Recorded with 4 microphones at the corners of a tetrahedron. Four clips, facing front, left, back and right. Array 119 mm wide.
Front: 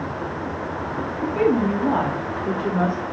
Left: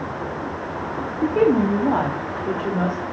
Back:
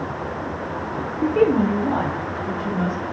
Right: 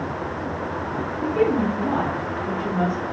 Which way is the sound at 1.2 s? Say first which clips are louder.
Left 3 dB, back 2 dB; 130° left.